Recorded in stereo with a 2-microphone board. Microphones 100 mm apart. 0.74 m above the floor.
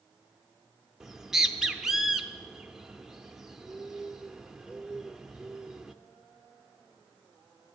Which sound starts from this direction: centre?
A bird, at 1.0 s.